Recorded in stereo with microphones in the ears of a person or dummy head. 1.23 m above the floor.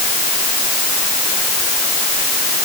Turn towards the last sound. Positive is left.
No sound to turn to.